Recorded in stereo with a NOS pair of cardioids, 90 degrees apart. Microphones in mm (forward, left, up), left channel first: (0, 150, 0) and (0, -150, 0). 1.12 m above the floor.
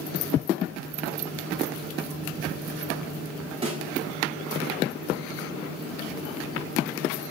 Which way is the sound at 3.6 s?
20° right.